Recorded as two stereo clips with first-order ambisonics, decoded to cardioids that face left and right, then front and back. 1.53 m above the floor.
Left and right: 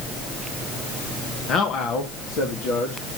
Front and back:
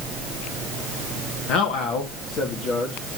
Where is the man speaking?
35° left, 1.5 m; by 3.2 s 55° left, 2.5 m.